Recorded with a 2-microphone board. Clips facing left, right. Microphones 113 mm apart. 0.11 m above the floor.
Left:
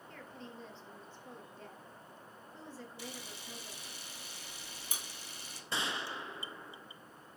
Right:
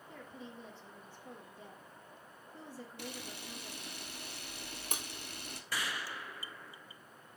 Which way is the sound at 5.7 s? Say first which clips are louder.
Left 2 dB; 25° left (ahead or behind).